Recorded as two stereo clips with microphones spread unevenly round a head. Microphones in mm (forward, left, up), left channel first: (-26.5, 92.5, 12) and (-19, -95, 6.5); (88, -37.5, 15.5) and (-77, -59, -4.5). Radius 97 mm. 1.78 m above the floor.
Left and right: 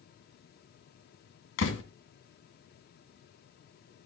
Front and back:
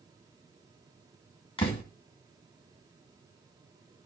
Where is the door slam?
65° left, 2 m.